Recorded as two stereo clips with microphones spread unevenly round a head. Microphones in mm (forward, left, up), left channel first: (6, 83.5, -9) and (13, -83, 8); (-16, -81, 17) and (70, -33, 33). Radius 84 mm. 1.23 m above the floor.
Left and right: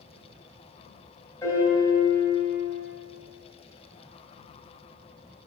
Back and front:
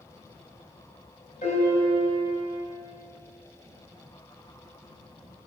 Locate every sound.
1.4 s a piano: 170° left, 4 m